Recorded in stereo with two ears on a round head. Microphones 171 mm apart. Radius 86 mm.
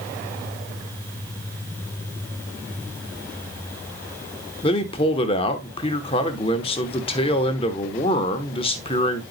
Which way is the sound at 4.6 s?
30° left (ahead or behind).